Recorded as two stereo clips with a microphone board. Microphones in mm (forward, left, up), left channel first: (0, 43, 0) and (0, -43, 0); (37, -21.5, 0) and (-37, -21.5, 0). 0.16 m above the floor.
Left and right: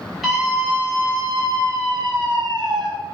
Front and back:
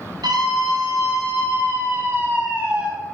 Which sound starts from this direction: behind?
A scream, at 0.2 s.